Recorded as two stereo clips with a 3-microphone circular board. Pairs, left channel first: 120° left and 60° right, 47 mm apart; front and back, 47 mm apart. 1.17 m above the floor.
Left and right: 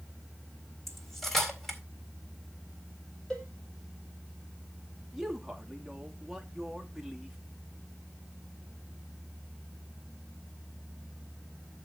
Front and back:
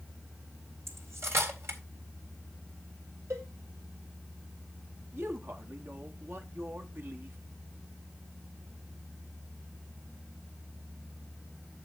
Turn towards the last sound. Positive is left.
turn(degrees=-145)